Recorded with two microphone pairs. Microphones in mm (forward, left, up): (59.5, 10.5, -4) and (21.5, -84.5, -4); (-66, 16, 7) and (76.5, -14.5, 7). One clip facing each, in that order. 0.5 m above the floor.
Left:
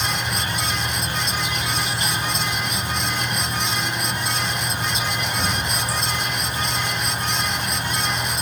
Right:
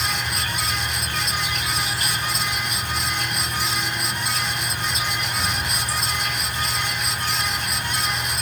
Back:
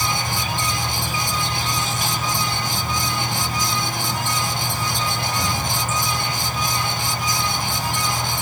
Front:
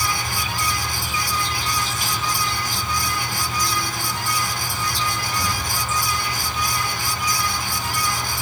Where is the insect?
130° left, 2 m.